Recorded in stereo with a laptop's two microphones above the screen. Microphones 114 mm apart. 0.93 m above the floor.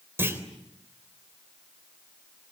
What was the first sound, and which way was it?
A clunk, 20° right (ahead or behind).